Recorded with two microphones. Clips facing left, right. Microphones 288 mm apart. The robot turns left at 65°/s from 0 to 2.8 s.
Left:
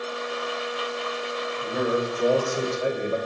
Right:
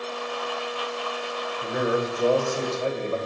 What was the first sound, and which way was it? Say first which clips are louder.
A man speaking: even; 140° right.